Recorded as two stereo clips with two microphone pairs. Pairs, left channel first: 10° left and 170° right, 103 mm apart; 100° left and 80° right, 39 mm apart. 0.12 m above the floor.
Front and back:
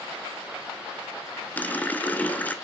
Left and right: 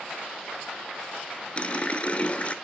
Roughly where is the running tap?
Left.